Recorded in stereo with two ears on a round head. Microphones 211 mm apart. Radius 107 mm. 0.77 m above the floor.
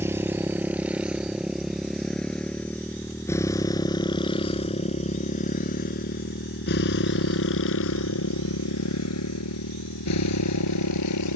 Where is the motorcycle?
10° right (ahead or behind); by 11.4 s 80° left.